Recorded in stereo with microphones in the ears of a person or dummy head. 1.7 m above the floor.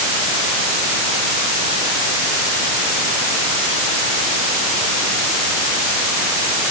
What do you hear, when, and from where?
Only background noise.